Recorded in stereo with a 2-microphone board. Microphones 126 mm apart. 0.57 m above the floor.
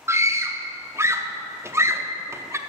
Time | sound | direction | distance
0.1 | a scream | 25° right (ahead or behind) | 0.6 m